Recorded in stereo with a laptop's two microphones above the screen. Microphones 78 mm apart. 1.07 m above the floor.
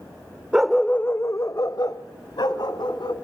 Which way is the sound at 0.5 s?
10° right (ahead or behind).